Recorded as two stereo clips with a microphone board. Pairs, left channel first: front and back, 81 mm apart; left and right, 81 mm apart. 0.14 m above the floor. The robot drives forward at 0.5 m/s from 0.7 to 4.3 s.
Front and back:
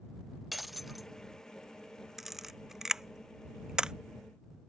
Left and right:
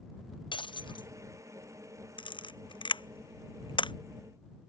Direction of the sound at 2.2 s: 95° left.